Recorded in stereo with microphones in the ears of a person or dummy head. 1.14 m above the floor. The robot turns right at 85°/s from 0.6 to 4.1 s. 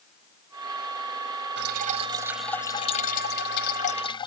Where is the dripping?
65° right; by 4.3 s 150° left.